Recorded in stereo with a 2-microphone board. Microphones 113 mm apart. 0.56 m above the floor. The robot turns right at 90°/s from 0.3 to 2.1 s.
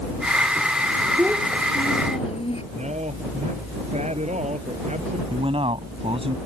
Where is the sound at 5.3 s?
60° right (ahead or behind).